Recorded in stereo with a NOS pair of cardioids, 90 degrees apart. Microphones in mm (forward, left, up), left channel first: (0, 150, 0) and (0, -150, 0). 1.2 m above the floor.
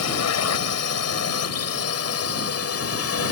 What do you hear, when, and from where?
0.0 s a drone: 60° left; by 3.3 s 50° left